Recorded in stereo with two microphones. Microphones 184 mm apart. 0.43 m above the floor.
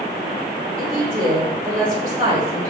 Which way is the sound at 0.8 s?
45° right (ahead or behind).